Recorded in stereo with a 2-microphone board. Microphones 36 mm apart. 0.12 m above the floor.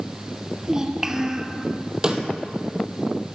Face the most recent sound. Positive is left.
turn(degrees=-20)  # may be behind; listen again after turning